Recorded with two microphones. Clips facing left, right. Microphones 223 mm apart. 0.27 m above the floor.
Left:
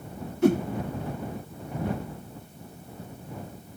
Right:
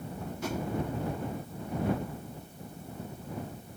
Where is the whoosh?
55° left (ahead or behind).